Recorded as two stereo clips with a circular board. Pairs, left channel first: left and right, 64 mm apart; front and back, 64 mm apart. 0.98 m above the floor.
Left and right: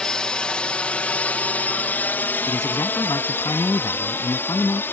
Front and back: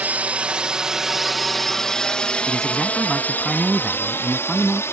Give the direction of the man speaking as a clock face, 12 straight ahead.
9 o'clock.